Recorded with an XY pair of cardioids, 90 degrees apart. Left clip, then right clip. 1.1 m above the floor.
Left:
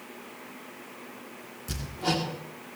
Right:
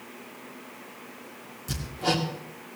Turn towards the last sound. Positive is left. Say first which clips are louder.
# right 2 dB
turn(degrees=-10)